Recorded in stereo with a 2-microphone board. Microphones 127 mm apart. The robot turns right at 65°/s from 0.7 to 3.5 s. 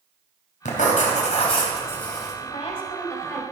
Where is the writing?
80° left, 3 m; by 2.3 s 175° right, 3 m.